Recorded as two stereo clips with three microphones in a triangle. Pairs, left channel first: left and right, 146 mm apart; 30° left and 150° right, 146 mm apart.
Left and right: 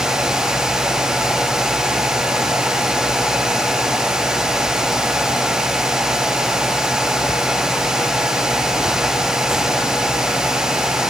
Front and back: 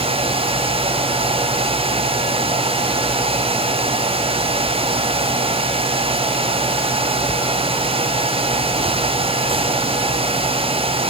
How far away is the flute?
No flute in this recording.